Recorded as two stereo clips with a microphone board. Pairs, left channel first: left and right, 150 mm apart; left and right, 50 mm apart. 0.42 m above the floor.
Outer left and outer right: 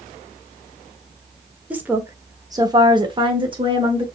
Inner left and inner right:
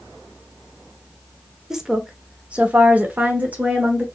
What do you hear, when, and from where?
1.7 s a woman speaking: 10° right (ahead or behind), 0.9 m; by 4.0 s 35° right (ahead or behind), 1.1 m